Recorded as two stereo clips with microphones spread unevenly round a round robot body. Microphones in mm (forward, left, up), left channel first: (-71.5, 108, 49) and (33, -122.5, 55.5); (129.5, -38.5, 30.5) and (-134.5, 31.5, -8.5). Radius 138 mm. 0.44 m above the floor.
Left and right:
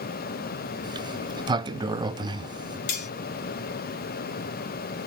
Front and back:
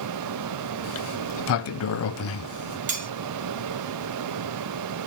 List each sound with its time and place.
0.8 s a sliding door: straight ahead, 0.5 m
2.9 s cutlery clinking: 105° left, 2.5 m